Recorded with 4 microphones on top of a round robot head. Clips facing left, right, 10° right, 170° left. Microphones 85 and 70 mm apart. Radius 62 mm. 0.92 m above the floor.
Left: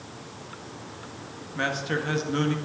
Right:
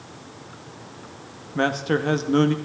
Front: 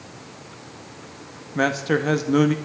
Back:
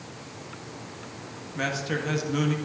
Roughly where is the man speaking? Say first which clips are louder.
Right 6 dB, front 8 dB; ahead right.